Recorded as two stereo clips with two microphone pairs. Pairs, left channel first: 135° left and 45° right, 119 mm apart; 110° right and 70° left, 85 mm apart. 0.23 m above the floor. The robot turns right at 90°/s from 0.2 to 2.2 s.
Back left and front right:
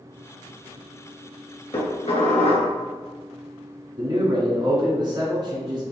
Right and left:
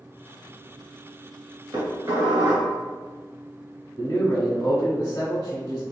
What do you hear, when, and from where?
1.7 s dishes clattering: 100° left, 1.8 m; by 2.7 s 145° left, 1.8 m
4.0 s a man speaking: 65° right, 1.6 m